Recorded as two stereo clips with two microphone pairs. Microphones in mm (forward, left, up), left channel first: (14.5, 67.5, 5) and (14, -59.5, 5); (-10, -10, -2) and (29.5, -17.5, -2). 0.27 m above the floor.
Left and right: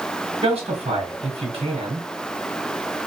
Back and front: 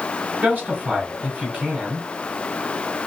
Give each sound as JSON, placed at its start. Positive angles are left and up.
{"t": 0.4, "sound": "a man speaking", "azimuth_deg": -65, "distance_m": 3.0}